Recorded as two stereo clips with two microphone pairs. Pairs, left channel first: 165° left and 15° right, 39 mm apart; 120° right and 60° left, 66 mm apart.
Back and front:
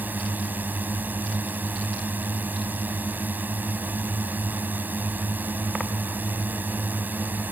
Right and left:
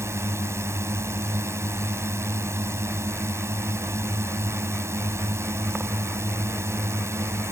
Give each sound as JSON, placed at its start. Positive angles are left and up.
{"t": 0.0, "sound": "a drone", "azimuth_deg": 15}